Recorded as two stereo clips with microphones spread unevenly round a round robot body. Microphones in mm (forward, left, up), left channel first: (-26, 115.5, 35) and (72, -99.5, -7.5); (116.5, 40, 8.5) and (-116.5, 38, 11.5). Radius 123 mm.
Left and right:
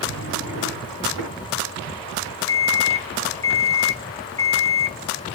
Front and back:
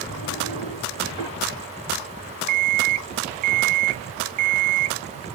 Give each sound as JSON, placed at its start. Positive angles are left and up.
{"t": 0.1, "sound": "a drawer", "azimuth_deg": -105, "distance_m": 3.5}
{"t": 2.5, "sound": "an alarm clock", "azimuth_deg": -170, "distance_m": 0.6}